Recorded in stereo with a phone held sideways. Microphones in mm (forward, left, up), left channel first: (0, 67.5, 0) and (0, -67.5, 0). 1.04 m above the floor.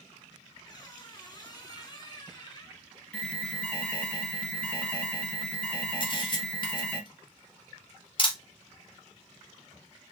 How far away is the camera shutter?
About 1.4 m.